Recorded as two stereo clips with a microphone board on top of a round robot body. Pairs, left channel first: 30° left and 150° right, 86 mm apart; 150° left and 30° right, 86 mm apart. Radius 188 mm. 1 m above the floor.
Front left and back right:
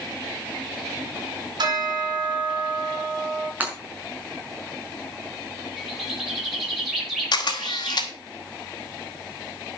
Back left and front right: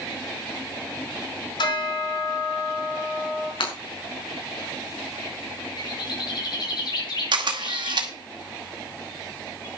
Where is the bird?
125° left, 6.5 m.